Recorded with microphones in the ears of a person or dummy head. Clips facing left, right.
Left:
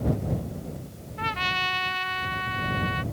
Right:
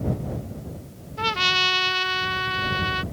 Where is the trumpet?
55° right (ahead or behind).